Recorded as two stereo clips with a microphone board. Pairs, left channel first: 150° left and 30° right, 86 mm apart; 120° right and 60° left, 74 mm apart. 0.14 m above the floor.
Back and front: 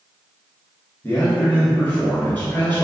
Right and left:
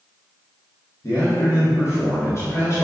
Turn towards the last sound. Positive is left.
turn(degrees=-145)